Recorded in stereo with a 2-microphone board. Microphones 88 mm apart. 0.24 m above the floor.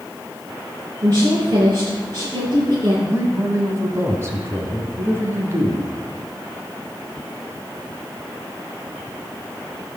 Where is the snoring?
No snoring in this recording.